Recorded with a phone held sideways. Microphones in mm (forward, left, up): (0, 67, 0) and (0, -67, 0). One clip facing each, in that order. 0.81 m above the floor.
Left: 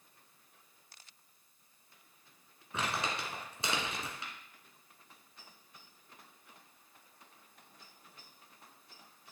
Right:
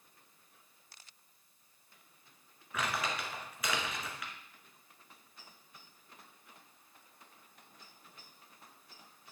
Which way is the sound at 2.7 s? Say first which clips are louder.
Even; 30° left (ahead or behind).